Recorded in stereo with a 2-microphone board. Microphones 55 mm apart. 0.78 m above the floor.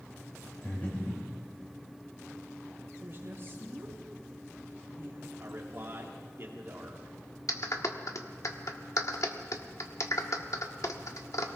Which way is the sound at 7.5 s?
65° left (ahead or behind).